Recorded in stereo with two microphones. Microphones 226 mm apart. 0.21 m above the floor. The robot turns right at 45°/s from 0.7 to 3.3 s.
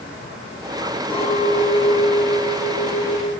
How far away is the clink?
About 6 m.